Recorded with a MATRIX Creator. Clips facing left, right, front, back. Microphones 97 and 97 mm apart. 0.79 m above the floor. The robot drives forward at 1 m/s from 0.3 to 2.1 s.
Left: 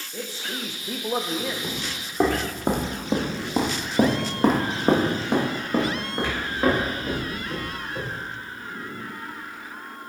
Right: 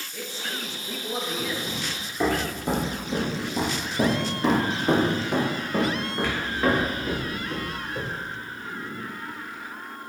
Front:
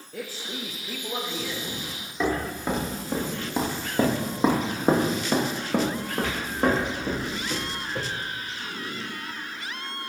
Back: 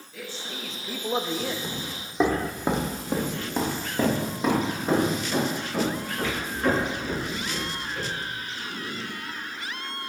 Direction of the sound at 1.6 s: 125° left.